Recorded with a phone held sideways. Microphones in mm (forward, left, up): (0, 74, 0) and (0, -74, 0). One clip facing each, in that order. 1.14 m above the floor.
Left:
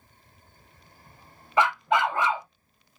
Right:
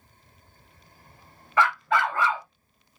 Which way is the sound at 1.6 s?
20° left (ahead or behind).